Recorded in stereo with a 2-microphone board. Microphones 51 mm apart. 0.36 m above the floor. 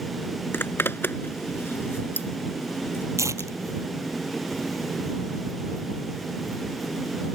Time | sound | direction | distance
0.5 | a zipper | 50° left (ahead or behind) | ?
3.2 | tearing paper | 85° right | ?